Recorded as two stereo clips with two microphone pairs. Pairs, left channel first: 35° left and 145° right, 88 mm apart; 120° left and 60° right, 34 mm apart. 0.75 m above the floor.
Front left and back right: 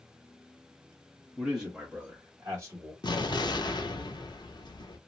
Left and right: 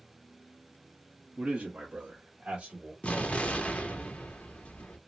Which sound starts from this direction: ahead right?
A man speaking, at 1.4 s.